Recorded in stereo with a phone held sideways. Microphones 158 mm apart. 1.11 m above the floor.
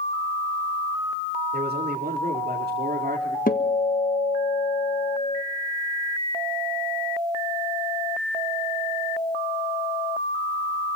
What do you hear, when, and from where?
1.5 s a man speaking: 85° right, 3 m; by 3.4 s 65° right (ahead or behind), 2.5 m
3.5 s a guitar: 60° left (ahead or behind), 1.4 m